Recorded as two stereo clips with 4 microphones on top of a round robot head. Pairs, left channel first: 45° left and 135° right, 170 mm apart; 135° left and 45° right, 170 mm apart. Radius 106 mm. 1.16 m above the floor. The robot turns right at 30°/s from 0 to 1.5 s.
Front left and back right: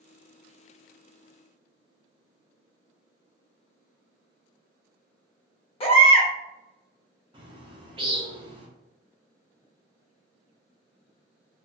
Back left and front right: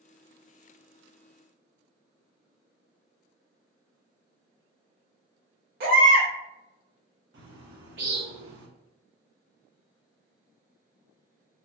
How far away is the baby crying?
About 0.9 m.